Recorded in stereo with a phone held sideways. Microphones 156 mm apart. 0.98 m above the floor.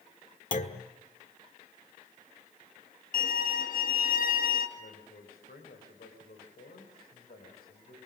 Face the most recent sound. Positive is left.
turn(degrees=80)